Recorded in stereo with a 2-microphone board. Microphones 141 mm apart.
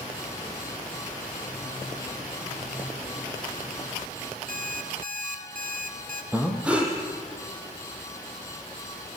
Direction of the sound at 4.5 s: 65° right (ahead or behind).